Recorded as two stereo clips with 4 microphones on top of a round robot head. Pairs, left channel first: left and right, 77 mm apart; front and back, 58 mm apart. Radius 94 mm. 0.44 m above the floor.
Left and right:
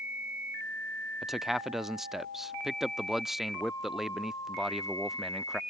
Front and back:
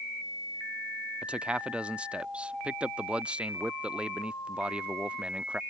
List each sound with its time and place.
1.2 s a man speaking: 170° right